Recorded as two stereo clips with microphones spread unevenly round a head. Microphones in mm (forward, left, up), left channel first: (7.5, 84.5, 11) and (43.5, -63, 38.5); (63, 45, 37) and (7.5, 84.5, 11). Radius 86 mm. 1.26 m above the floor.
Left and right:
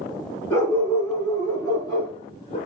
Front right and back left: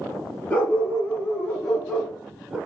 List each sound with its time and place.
0.5 s a dog barking: 30° left, 6 m; by 2.6 s 50° left, 3.5 m